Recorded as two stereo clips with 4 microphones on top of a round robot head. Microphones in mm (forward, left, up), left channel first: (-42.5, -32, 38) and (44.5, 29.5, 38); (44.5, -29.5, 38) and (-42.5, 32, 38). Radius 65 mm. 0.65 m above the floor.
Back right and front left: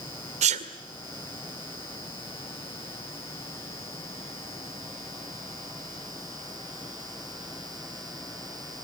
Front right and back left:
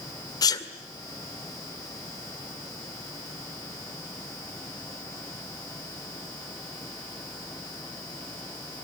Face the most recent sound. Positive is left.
turn(degrees=20)